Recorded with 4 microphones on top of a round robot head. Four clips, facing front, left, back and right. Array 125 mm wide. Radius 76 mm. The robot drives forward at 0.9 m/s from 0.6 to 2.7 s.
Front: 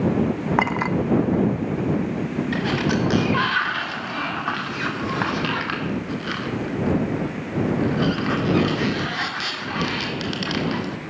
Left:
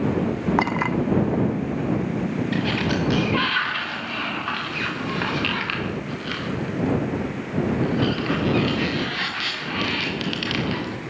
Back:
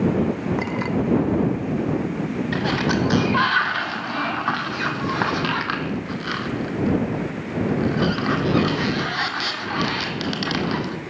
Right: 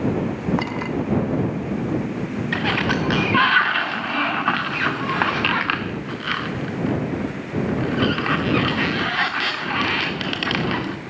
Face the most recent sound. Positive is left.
turn(degrees=-115)